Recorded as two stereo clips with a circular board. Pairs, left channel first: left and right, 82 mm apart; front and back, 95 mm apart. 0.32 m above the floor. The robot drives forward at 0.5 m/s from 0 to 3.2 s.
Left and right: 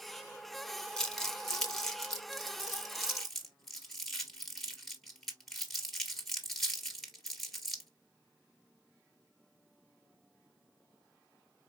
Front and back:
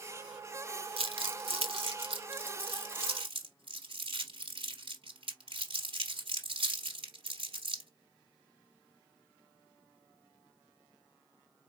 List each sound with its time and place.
1.0 s crumpling: 170° left, 0.9 m; by 7.9 s 175° left, 2 m